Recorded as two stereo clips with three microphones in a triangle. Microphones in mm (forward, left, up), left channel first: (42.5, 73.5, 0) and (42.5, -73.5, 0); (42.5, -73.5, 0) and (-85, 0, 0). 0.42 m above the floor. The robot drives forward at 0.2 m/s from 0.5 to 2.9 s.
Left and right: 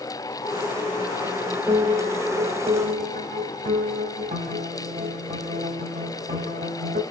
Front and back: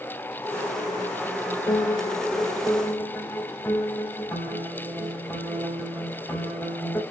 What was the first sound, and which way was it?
A piano, 95° right.